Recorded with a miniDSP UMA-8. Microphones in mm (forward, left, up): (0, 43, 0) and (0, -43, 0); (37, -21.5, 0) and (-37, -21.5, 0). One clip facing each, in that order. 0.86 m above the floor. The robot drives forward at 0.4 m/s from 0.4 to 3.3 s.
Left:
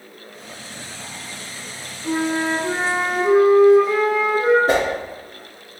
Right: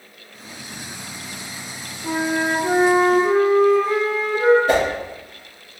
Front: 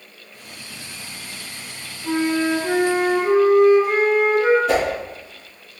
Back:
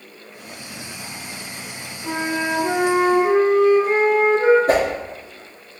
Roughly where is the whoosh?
Behind left.